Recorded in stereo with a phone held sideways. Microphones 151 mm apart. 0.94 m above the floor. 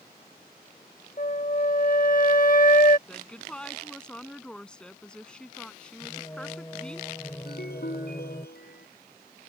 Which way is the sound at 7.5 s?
80° left.